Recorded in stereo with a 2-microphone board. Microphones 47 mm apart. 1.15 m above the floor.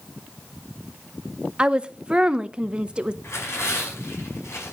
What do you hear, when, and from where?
1.6 s a woman speaking: 20° right (ahead or behind), 0.7 m
3.2 s tearing paper: 65° left (ahead or behind), 5.5 m